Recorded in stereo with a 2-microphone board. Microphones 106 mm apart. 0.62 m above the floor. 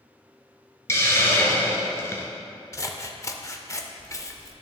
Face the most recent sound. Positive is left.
turn(degrees=30)  # may be behind; listen again after turning